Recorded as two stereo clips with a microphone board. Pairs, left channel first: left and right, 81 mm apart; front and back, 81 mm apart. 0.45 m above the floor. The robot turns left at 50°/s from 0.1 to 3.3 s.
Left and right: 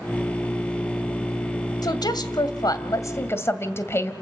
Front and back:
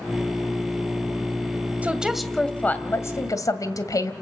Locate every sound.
1.8 s a woman speaking: 110° left, 1.9 m; by 4.1 s 35° left, 1.9 m